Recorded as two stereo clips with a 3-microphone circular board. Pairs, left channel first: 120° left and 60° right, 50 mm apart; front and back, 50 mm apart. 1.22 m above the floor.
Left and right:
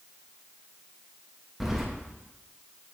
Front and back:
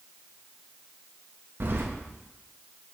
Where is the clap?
I don't hear a clap.